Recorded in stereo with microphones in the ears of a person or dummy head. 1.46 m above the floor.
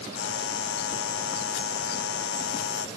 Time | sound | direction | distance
0.1 | a buzzer | 80° left | ?